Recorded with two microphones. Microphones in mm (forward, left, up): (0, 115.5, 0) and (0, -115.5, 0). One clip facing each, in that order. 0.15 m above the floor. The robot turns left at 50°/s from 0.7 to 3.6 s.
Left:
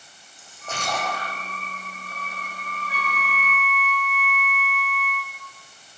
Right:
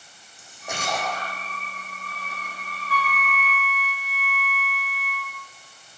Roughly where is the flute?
Behind.